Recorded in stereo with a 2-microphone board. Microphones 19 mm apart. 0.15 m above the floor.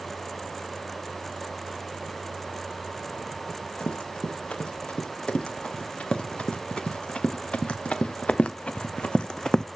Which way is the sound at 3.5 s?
65° left (ahead or behind).